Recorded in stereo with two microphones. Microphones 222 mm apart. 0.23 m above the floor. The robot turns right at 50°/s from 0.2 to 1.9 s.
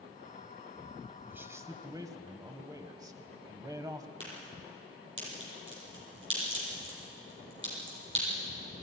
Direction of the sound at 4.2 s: 55° right (ahead or behind).